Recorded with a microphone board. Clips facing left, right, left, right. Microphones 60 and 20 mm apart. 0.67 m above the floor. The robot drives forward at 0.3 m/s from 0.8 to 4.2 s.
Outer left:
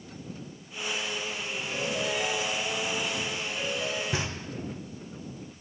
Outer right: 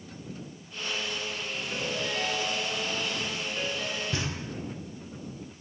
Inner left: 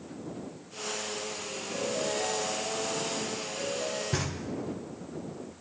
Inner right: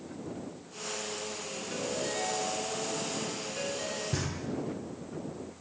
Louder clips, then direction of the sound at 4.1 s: Outer left 1 dB, inner left 2 dB; 25° left (ahead or behind).